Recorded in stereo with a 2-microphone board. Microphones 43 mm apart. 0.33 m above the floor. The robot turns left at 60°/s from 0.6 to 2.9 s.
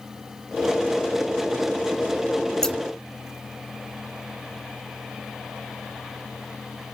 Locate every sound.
2.6 s scissors: 10° left (ahead or behind), 1.6 m; by 2.8 s centre (ahead or behind), 1.6 m